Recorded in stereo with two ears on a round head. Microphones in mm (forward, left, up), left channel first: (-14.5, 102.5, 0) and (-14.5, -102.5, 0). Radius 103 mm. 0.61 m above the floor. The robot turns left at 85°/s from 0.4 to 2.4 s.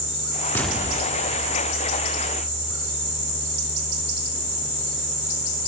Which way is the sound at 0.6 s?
10° left.